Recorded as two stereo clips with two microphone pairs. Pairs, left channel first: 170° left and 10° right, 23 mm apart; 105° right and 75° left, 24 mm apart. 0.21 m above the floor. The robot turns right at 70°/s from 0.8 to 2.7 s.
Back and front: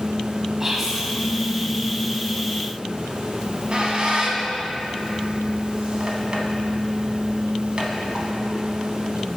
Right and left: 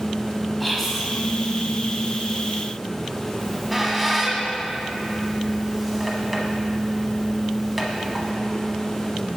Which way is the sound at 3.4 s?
5° right.